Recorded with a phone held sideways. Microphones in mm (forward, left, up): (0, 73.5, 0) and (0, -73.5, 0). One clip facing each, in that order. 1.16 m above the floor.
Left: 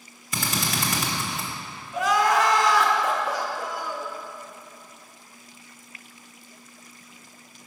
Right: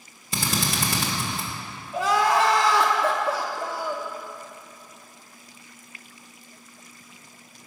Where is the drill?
30° right (ahead or behind), 1.3 m.